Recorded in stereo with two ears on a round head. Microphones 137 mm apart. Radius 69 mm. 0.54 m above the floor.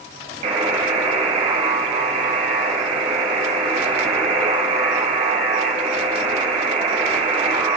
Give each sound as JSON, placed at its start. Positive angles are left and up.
{"t": 0.4, "sound": "a buzzer", "side_deg": -40, "distance_m": 3.5}